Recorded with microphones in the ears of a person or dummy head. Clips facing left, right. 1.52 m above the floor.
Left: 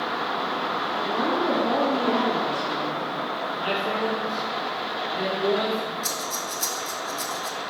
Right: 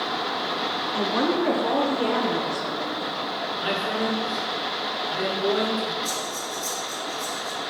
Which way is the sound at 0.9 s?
65° right (ahead or behind).